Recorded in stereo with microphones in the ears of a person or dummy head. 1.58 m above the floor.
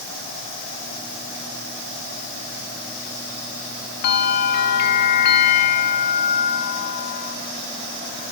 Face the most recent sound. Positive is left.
turn(degrees=55)  # may be behind; listen again after turning